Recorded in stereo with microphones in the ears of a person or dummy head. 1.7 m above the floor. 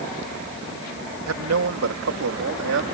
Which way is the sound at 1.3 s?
85° right.